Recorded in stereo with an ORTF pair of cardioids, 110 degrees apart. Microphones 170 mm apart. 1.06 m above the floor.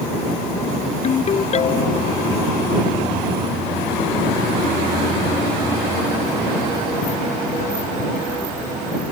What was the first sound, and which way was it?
A ringtone, 40° left.